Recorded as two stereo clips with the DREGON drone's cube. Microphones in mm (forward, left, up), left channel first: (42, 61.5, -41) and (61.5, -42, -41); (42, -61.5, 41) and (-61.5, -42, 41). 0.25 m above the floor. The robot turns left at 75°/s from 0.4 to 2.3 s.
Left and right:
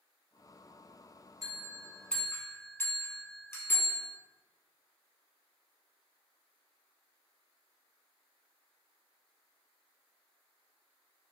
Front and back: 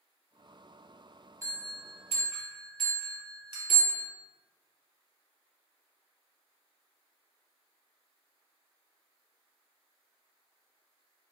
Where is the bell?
130° right, 0.8 m; by 4.1 s 160° left, 0.8 m.